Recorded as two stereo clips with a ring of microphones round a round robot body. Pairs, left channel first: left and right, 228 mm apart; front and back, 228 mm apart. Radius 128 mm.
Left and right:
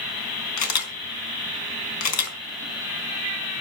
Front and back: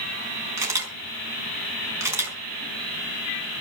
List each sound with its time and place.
0.6 s a camera shutter: 100° left, 4.5 m